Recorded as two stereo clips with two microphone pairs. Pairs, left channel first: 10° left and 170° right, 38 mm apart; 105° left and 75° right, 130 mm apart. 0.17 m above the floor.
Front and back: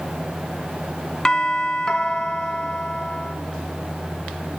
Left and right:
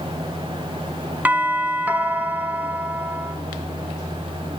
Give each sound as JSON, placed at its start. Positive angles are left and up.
{"t": 1.2, "sound": "a doorbell", "azimuth_deg": -15, "distance_m": 1.4}